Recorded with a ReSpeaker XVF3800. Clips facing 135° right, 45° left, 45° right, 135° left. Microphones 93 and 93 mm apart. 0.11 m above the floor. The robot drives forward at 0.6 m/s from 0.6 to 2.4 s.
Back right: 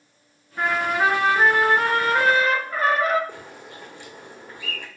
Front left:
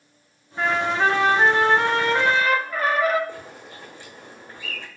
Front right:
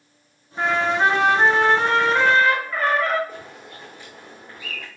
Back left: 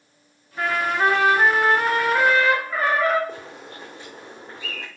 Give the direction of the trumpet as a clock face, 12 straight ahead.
2 o'clock.